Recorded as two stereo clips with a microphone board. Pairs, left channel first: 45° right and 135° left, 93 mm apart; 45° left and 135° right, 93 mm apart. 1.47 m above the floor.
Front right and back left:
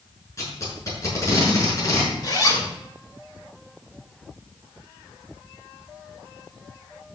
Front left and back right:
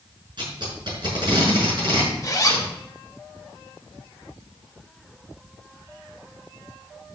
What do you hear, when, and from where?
0.4 s tape being pulled: 100° right, 6 m
2.2 s a zipper: 5° right, 2.5 m